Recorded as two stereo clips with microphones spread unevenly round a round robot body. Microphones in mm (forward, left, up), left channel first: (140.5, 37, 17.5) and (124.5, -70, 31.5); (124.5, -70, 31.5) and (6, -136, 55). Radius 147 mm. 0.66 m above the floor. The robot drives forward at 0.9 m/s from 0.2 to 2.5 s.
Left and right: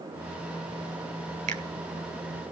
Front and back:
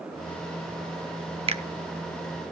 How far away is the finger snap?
About 1.4 m.